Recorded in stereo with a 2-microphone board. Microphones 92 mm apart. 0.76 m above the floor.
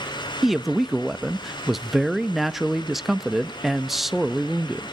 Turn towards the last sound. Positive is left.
turn(degrees=0)  # may be behind; listen again after turning